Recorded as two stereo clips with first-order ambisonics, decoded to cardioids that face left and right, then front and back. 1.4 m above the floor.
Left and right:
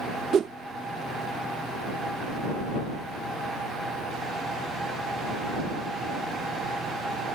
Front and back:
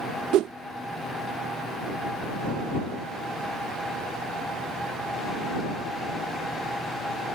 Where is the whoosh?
145° right.